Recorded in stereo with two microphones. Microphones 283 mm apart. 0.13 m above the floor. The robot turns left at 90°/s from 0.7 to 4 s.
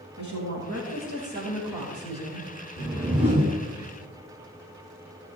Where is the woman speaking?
85° right, 6 m; by 2.5 s 110° left, 6 m.